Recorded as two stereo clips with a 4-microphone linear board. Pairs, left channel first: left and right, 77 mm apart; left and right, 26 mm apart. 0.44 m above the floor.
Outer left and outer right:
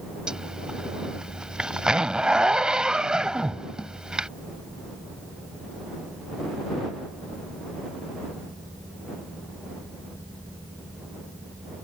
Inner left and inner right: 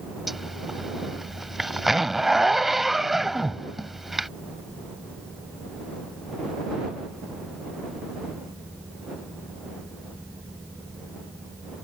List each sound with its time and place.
0.3 s a zipper: 10° right (ahead or behind)